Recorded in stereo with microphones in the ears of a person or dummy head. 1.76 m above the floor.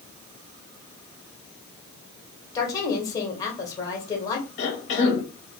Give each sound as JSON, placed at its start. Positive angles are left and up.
{"t": 2.5, "sound": "a woman speaking", "side_deg": 20, "distance_m": 1.0}
{"t": 4.6, "sound": "a cough", "side_deg": 40, "distance_m": 0.8}